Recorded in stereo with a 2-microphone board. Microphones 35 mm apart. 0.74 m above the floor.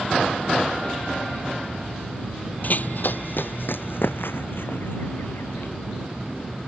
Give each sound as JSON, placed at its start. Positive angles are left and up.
{"t": 2.6, "sound": "running footsteps", "side_deg": 50}